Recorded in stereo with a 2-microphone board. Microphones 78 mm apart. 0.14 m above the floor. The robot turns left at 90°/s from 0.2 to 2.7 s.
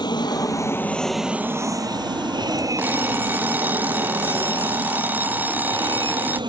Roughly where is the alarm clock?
Right.